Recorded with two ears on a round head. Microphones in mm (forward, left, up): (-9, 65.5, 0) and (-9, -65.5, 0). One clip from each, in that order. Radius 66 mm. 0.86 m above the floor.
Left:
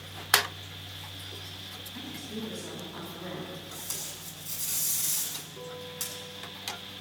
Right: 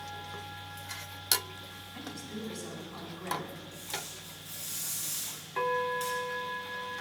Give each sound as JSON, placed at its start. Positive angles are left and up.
{"t": 1.9, "sound": "a woman speaking", "side_deg": -10, "distance_m": 5.0}
{"t": 3.7, "sound": "tape being pulled", "side_deg": 45, "distance_m": 7.0}